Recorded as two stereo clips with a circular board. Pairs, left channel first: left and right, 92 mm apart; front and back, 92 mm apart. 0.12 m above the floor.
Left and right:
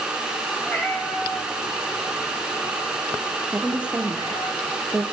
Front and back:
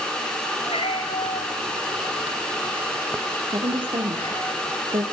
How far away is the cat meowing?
About 6 m.